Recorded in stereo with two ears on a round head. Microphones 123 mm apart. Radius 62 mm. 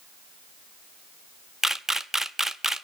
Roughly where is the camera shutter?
Centre.